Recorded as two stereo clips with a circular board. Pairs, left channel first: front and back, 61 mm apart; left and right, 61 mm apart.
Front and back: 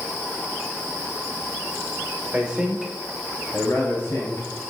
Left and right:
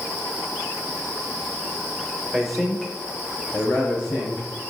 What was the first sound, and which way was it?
A man speaking, 170° right.